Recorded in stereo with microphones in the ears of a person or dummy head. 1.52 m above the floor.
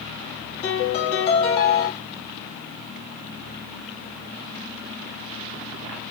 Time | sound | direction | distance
0.6 | a piano | 35° left (ahead or behind) | 1.6 m